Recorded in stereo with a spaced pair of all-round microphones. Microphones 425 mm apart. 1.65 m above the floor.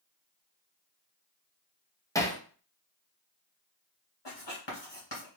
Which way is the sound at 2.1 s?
10° left (ahead or behind).